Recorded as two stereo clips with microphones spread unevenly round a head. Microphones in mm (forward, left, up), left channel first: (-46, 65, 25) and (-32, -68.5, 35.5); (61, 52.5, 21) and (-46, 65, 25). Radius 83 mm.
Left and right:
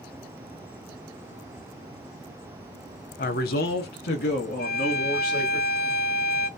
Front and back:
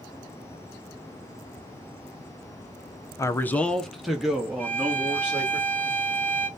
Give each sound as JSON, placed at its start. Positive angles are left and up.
{"t": 3.2, "sound": "a man speaking", "azimuth_deg": 60, "distance_m": 0.5}
{"t": 4.6, "sound": "a violin", "azimuth_deg": 65, "distance_m": 1.3}